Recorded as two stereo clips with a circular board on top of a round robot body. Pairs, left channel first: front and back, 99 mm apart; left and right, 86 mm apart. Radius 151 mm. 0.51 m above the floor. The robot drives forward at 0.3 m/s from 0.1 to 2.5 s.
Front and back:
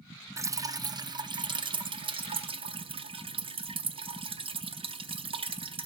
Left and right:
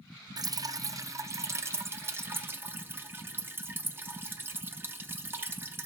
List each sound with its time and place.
0.4 s dripping: 125° right, 0.6 m; by 5.9 s 155° right, 1.1 m